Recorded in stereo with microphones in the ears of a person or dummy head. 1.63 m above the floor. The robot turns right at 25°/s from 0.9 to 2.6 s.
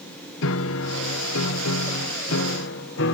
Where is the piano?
75° left; by 3.2 s 115° left.